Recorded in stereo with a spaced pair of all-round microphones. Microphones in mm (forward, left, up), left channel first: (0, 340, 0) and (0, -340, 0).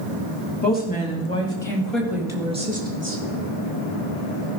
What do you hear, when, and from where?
0.6 s a woman speaking: 15° left (ahead or behind), 3 m; by 3.2 s 20° right (ahead or behind), 2 m